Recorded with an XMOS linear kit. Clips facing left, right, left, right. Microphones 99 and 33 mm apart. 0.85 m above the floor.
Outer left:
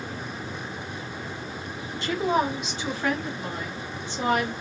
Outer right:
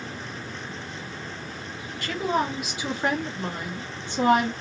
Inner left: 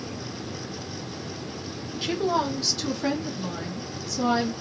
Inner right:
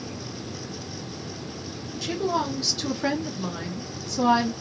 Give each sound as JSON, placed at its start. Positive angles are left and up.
{"t": 2.0, "sound": "a woman speaking", "side_deg": 20, "distance_m": 1.1}